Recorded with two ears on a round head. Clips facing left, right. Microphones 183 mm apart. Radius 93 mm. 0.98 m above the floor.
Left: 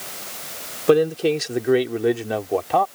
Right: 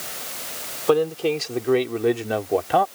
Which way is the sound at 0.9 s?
25° left (ahead or behind).